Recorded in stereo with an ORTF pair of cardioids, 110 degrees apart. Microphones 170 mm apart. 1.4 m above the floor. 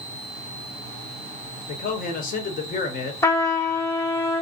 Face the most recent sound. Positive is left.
turn(degrees=15)